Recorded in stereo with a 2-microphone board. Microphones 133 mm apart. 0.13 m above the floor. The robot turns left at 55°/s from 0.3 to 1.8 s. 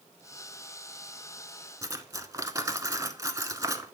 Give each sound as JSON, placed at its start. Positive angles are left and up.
{"t": 1.8, "sound": "cutlery clinking", "side_deg": -25, "distance_m": 0.7}